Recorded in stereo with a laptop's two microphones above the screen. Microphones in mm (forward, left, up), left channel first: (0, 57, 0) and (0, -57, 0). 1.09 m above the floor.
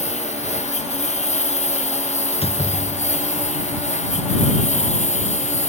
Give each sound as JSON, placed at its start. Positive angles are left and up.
{"t": 0.0, "sound": "a lawn mower", "side_deg": 85}
{"t": 2.3, "sound": "a door slam", "side_deg": 60}